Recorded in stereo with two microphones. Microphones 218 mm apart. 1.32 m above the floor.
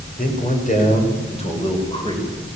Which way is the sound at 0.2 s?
40° left (ahead or behind).